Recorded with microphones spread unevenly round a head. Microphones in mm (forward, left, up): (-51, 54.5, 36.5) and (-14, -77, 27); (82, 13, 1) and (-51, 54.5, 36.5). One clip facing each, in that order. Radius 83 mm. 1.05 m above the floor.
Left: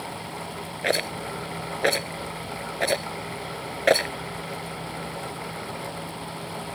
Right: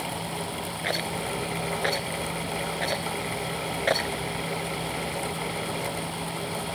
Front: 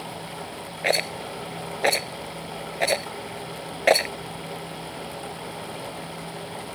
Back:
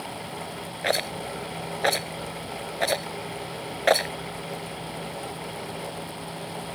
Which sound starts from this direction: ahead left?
A rattle, at 0.8 s.